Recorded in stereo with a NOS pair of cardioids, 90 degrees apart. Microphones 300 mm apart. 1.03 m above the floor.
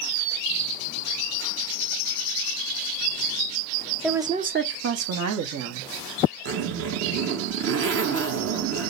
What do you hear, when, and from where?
4.0 s a woman speaking: straight ahead, 0.7 m; by 5.9 s 75° right, 1.6 m
6.5 s a zipper: 50° right, 1.1 m